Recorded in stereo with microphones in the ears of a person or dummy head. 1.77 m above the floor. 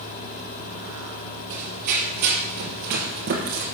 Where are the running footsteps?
45° right (ahead or behind), 3 m.